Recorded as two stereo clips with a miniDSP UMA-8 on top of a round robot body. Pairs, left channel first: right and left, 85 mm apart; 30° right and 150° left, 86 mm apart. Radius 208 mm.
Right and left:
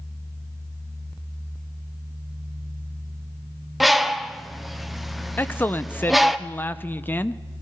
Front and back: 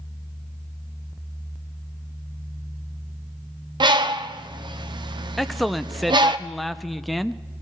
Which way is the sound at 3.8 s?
Straight behind.